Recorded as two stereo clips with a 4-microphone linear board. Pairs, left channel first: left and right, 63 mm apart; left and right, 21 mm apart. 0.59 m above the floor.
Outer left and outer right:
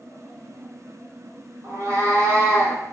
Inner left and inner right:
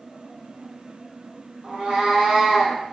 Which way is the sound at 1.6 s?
50° right (ahead or behind).